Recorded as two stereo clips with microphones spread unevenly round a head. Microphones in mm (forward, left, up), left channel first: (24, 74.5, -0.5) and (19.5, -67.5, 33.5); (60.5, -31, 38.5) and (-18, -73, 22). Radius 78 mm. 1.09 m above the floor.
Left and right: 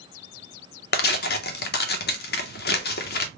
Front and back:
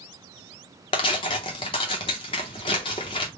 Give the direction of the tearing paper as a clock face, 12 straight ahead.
9 o'clock.